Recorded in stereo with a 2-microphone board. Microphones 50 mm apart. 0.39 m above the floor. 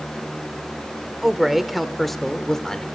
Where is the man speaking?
5° right (ahead or behind), 1.0 m; by 2.9 s 10° left (ahead or behind), 0.9 m.